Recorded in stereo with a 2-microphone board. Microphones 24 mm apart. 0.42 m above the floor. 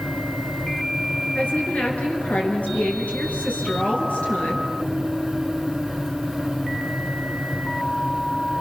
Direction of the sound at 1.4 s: 70° left (ahead or behind).